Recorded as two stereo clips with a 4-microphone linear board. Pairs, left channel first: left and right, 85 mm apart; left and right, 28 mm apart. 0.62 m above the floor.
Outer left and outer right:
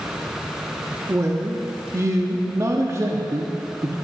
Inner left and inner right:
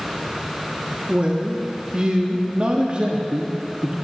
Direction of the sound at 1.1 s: 35° right (ahead or behind).